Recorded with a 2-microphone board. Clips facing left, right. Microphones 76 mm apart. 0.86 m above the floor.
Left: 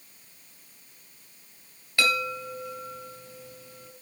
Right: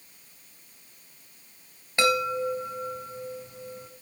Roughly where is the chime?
Right.